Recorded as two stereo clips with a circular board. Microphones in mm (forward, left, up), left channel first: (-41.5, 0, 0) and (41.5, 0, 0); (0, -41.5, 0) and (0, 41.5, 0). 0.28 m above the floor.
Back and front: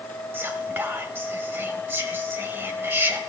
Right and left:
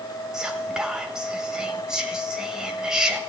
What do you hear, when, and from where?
0.3 s whispering: 20° left, 0.9 m